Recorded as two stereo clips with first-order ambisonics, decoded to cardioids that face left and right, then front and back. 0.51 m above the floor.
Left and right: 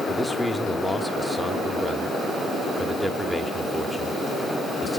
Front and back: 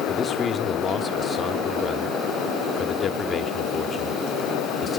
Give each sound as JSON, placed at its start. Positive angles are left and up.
{"t": 0.1, "sound": "a man speaking", "azimuth_deg": 15, "distance_m": 0.8}